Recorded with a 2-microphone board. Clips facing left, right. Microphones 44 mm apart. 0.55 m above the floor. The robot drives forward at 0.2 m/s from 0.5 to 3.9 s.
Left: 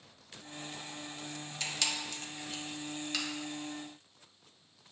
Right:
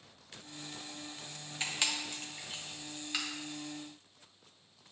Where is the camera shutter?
25° right (ahead or behind), 0.5 m; by 3.2 s 15° right (ahead or behind), 0.8 m.